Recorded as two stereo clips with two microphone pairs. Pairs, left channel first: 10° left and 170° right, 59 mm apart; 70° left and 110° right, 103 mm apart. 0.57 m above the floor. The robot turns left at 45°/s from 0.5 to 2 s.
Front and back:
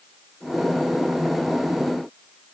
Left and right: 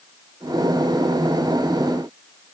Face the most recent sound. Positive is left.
No sound to turn to.